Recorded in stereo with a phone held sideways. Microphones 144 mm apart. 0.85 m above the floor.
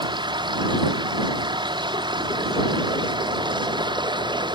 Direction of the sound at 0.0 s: 35° right (ahead or behind).